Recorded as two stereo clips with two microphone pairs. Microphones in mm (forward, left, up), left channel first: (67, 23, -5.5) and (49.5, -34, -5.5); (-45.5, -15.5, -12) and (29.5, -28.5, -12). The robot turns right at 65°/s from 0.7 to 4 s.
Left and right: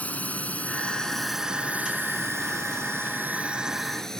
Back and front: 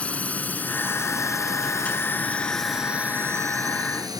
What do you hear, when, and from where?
0.0 s a drone: 115° left; by 4.2 s 10° right